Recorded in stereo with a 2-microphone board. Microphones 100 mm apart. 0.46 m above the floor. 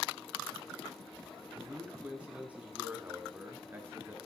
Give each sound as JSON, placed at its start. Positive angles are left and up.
{"t": 1.5, "sound": "a man speaking", "side_deg": -10, "distance_m": 5.0}